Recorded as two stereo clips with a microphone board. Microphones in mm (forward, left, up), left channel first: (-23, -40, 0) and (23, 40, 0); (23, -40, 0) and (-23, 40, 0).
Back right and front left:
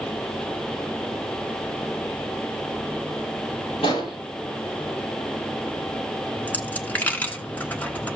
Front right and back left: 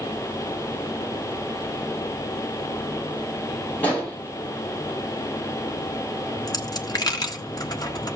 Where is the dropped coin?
55° right, 1.2 m.